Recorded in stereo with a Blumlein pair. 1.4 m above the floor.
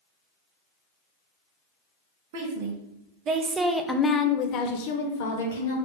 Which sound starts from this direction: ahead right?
A woman speaking, at 2.3 s.